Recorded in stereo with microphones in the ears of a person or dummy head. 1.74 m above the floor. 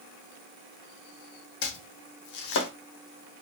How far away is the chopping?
About 0.6 m.